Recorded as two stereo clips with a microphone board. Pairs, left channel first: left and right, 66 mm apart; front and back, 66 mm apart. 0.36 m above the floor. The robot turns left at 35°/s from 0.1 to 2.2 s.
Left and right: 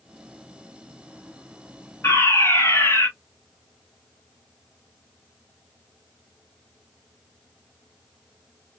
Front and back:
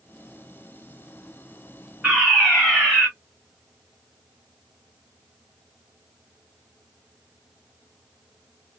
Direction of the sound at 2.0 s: 95° left.